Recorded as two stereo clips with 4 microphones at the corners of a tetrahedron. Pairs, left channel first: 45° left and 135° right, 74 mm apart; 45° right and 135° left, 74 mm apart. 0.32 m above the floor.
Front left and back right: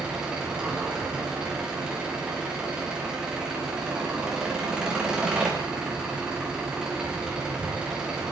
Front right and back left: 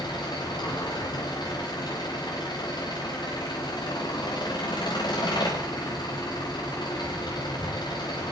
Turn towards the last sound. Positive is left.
turn(degrees=-55)